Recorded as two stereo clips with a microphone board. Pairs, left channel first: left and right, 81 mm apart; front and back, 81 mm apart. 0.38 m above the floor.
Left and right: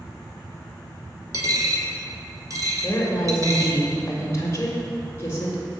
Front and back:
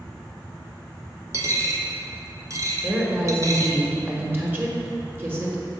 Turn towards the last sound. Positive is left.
turn(degrees=130)